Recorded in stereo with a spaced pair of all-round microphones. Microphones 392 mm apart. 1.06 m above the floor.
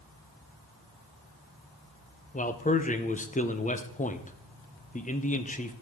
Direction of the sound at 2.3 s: 20° left (ahead or behind).